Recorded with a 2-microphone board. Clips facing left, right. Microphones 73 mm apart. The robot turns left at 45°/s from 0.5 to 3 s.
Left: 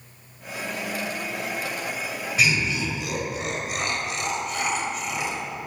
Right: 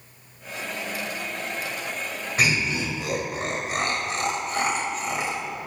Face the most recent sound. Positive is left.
turn(degrees=-40)  # may be behind; listen again after turning